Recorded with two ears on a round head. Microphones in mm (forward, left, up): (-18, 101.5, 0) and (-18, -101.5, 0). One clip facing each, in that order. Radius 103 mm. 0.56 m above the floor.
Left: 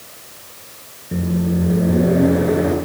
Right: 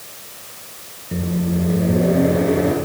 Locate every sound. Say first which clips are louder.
1.1 s a microwave: left 2 dB; 10° left (ahead or behind), 6.5 m